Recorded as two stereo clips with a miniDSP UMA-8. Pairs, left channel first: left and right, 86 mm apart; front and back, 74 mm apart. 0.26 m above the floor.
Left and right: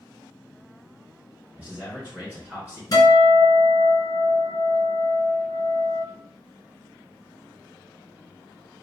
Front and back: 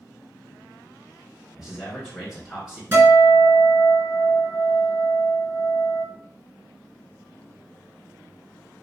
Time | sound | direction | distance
1.6 | a man speaking | 110° right | 1.2 m
2.9 | a guitar | 130° left | 1.9 m